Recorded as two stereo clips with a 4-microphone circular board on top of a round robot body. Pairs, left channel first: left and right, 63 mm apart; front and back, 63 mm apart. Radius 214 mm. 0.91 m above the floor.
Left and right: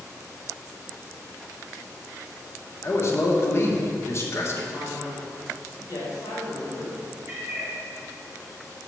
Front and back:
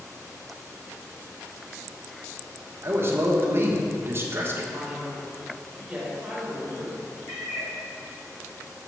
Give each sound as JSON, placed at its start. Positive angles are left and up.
{"t": 2.8, "sound": "a man speaking", "azimuth_deg": 135, "distance_m": 1.3}
{"t": 4.7, "sound": "a man speaking", "azimuth_deg": 100, "distance_m": 2.5}
{"t": 7.3, "sound": "a cat meowing", "azimuth_deg": -40, "distance_m": 1.2}